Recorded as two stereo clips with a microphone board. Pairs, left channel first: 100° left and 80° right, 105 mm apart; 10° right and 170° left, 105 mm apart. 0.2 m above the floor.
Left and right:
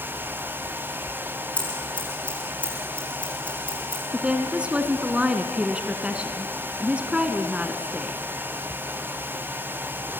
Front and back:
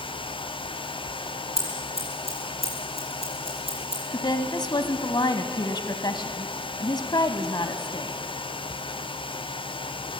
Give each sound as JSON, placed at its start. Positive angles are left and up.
{"t": 1.6, "sound": "scissors", "azimuth_deg": 175, "distance_m": 8.5}
{"t": 4.1, "sound": "a woman speaking", "azimuth_deg": -5, "distance_m": 1.3}